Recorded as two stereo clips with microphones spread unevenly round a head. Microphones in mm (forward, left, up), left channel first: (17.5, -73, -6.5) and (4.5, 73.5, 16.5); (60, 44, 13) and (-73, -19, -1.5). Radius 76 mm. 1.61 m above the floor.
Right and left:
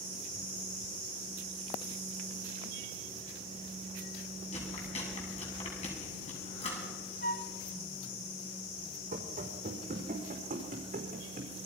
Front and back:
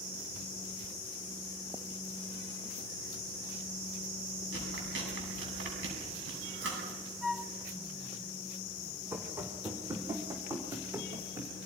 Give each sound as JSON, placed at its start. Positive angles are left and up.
{"t": 4.5, "sound": "chewing", "azimuth_deg": -140, "distance_m": 7.5}
{"t": 7.2, "sound": "a flute", "azimuth_deg": -60, "distance_m": 0.7}
{"t": 9.1, "sound": "running footsteps", "azimuth_deg": 130, "distance_m": 4.0}